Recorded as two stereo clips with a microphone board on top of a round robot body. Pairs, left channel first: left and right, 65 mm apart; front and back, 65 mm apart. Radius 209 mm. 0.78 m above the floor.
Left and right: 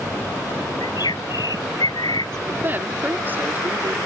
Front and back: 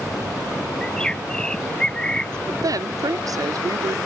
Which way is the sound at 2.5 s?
150° right.